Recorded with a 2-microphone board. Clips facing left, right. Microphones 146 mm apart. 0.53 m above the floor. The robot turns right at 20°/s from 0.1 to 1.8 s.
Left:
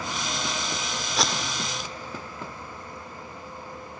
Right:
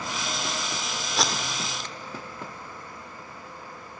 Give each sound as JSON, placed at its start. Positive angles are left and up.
{"t": 1.2, "sound": "tape being pulled", "side_deg": 0, "distance_m": 1.3}